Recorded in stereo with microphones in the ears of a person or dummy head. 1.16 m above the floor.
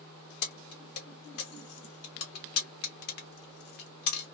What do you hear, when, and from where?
0.4 s keys jangling: 55° left (ahead or behind), 0.9 m